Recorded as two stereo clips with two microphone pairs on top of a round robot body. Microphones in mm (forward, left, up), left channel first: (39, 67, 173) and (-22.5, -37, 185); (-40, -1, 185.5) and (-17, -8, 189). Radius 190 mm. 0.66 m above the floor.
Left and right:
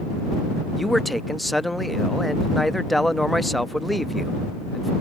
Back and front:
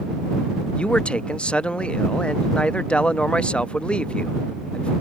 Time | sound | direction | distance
0.8 | a man speaking | 145° left | ?